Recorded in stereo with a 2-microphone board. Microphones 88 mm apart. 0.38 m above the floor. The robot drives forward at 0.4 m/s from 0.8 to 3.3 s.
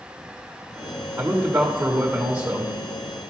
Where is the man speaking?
15° right (ahead or behind), 1.3 m; by 2.7 s 20° right (ahead or behind), 1.3 m.